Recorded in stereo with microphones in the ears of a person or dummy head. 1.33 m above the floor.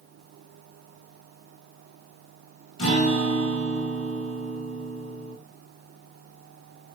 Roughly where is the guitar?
Left.